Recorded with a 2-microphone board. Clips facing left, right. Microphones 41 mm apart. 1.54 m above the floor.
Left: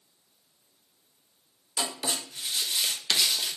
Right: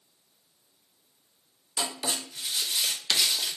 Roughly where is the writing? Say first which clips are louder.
Even; centre.